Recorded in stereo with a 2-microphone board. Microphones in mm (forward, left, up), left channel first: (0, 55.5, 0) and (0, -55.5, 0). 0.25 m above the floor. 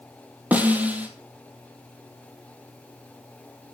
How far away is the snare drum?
About 1.0 m.